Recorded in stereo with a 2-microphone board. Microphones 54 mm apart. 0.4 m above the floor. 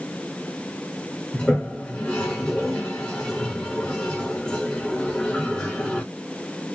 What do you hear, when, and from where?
1.3 s a toilet flushing: 10° left (ahead or behind), 1.2 m